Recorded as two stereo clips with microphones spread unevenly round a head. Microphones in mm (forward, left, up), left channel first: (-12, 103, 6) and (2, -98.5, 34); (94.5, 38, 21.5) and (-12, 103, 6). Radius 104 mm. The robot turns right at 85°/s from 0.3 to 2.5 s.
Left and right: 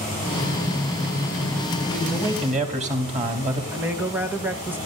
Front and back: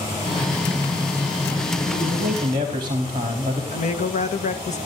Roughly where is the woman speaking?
Ahead.